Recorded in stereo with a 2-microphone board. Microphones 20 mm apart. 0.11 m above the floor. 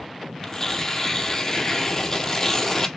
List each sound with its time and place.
0.4 s tearing paper: 20° left (ahead or behind), 0.6 m